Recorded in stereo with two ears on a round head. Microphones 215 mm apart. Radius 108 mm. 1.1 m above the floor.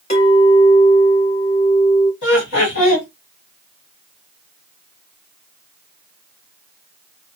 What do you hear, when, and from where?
0.1 s a clink: 30° left (ahead or behind), 2.5 m
2.2 s laughter: 50° left (ahead or behind), 1.5 m